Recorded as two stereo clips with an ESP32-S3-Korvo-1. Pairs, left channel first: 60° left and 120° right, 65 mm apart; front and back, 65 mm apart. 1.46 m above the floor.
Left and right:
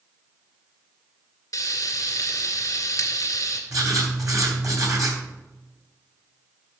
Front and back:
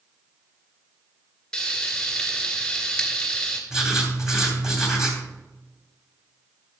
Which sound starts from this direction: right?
Writing, at 3.7 s.